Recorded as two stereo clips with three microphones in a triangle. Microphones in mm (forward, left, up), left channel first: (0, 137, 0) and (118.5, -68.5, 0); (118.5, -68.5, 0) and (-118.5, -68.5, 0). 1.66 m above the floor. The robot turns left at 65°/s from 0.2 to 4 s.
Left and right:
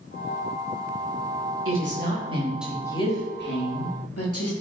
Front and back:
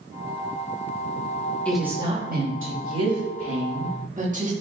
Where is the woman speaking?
85° right, 4 m; by 4.5 s 125° left, 4 m.